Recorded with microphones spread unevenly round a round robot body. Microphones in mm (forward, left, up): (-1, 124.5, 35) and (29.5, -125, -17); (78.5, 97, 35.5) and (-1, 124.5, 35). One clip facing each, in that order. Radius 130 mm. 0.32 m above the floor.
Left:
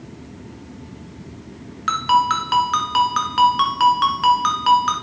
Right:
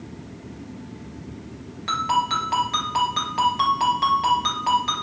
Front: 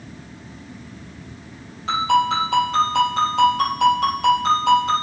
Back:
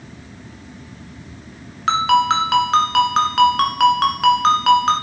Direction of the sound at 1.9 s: 160° left.